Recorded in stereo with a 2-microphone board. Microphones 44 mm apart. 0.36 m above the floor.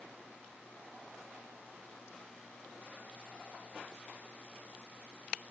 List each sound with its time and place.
Only background noise.